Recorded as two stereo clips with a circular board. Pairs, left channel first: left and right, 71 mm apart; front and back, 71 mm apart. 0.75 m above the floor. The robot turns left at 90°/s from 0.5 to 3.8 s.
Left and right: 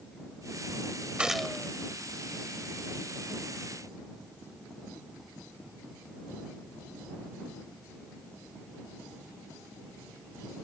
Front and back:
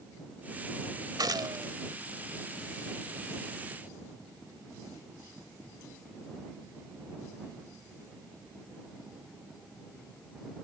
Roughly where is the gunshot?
Behind.